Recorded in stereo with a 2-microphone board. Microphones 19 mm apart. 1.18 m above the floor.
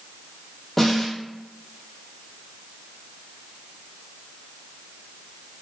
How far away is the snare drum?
About 0.7 m.